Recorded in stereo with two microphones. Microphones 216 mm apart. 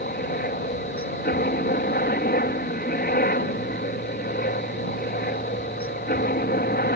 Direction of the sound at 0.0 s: 40° left (ahead or behind).